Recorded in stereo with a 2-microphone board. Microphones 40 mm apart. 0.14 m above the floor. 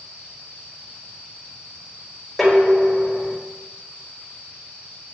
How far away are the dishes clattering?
About 4 m.